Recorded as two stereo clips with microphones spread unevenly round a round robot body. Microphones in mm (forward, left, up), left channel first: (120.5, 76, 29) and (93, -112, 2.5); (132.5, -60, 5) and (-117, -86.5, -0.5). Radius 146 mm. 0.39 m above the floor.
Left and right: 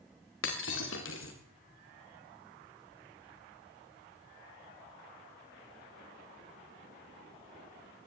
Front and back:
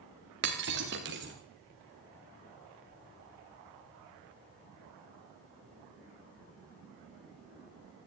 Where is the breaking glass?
130° left, 3.5 m.